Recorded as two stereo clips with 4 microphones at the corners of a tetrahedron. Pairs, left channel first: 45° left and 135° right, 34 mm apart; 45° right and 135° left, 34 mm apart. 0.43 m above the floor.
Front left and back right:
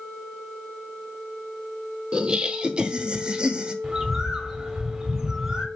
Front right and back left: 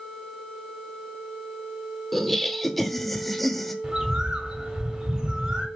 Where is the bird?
165° left, 1.1 m.